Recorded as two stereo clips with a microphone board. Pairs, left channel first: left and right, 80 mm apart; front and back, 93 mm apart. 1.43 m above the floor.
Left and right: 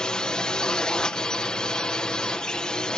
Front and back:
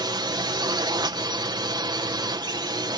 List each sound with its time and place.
0.0 s a drone: 165° left